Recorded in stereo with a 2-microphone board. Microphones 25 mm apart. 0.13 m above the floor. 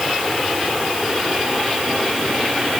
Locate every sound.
Only background noise.